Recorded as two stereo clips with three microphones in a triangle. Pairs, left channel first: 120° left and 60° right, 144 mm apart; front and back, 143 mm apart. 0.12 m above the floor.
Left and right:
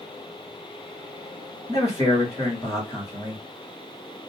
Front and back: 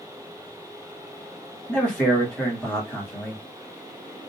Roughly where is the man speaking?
Left.